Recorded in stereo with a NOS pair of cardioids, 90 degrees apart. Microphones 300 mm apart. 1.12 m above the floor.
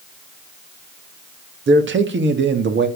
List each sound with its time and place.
1.7 s a man speaking: 40° right, 1.7 m